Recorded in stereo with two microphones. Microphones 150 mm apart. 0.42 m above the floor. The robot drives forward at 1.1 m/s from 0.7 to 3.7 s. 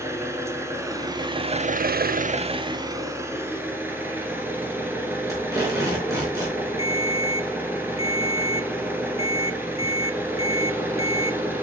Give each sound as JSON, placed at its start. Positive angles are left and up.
{"t": 0.0, "sound": "an engine running", "side_deg": -20, "distance_m": 1.5}
{"t": 5.3, "sound": "tape being pulled", "side_deg": -20, "distance_m": 4.5}
{"t": 6.8, "sound": "a ringtone", "side_deg": 40, "distance_m": 1.0}